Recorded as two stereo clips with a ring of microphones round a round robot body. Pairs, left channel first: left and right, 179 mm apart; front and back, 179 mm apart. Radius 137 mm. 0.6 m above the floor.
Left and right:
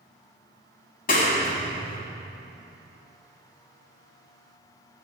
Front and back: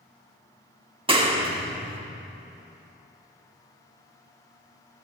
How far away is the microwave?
No microwave in this recording.